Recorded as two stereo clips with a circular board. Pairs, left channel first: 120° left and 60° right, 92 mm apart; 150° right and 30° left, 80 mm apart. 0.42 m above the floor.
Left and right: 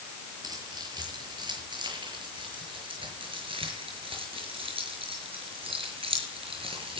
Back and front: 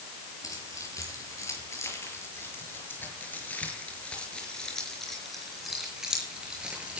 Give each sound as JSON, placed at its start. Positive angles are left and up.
{"t": 0.4, "sound": "keys jangling", "azimuth_deg": -105, "distance_m": 7.0}